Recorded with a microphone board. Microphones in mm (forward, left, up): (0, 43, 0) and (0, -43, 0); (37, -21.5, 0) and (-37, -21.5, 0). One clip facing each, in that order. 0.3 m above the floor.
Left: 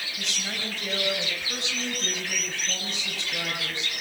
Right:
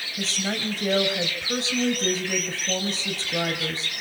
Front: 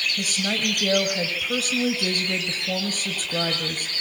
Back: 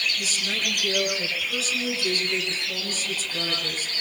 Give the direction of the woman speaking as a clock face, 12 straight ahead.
1 o'clock.